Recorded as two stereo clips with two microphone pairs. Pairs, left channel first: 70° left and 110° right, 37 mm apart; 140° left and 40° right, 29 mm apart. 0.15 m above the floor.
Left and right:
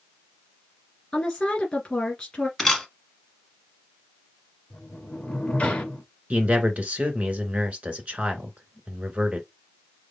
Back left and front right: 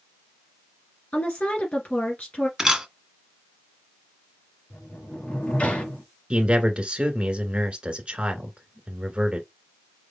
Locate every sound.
1.1 s a woman speaking: 135° left, 2 m
2.6 s a camera shutter: straight ahead, 1.4 m
4.7 s a sliding door: 120° left, 2.5 m
6.3 s a man speaking: 80° right, 1.6 m